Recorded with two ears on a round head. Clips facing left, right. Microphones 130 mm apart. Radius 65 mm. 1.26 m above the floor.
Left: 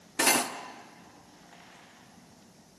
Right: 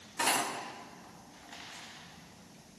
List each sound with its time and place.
0.2 s cutlery clinking: 65° left (ahead or behind), 1.2 m